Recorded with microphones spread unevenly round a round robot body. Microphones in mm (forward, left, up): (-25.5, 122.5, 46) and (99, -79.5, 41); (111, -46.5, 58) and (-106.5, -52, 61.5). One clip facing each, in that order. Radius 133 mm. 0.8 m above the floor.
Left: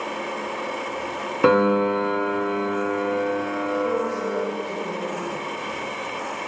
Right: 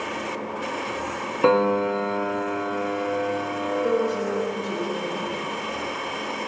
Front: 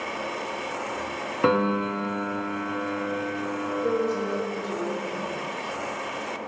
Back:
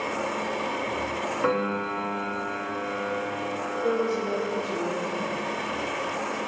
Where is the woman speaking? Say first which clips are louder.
Right 2 dB, back 1 dB; 85° right, 2.5 m.